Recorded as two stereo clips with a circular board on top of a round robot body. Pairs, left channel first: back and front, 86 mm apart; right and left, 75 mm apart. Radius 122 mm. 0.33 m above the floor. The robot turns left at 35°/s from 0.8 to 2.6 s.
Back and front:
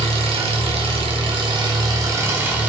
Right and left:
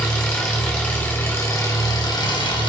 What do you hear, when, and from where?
0.0 s an engine running: 15° right, 2.5 m; by 2.7 s 75° right, 2.5 m